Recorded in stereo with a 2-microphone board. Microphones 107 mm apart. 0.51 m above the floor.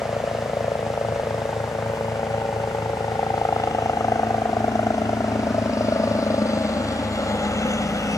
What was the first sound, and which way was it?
A helicopter, 30° left (ahead or behind).